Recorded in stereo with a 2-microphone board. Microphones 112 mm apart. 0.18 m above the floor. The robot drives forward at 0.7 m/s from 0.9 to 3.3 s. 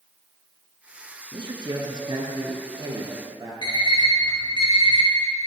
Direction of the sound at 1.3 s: 50° right (ahead or behind).